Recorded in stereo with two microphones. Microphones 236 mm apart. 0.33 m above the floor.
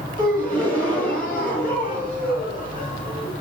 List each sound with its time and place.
0.2 s a gasp: 5° left (ahead or behind), 2.5 m